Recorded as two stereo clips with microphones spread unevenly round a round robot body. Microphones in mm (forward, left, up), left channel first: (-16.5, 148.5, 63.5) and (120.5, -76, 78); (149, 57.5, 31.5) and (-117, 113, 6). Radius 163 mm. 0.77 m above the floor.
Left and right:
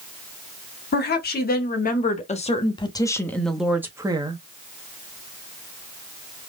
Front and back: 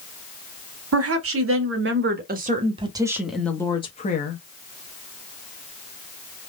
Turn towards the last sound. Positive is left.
turn(degrees=0)